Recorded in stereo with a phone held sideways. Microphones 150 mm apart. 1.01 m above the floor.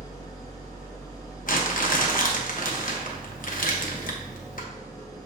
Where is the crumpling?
65° left (ahead or behind), 1.0 m.